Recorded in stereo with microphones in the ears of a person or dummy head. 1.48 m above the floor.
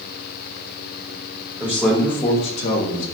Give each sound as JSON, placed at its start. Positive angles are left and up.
{"t": 1.6, "sound": "a man speaking", "side_deg": -5, "distance_m": 0.9}